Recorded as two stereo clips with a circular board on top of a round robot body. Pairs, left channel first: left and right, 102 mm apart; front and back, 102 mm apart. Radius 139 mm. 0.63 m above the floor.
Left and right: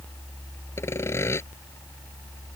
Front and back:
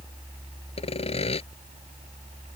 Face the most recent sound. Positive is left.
turn(degrees=25)